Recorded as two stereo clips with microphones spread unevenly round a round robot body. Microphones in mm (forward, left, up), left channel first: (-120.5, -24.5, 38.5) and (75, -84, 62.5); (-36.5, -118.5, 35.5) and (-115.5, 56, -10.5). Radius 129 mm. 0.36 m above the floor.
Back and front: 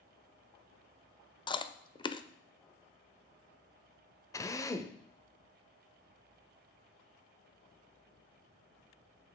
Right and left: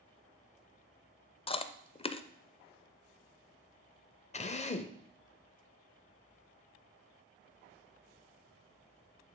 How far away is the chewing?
About 0.5 m.